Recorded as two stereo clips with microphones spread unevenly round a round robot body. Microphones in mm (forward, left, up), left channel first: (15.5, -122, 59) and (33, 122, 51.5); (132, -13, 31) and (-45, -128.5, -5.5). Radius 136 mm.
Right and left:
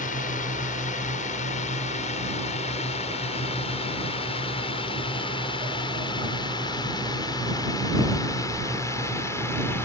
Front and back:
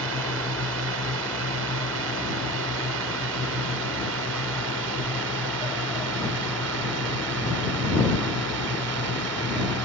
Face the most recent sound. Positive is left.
turn(degrees=-175)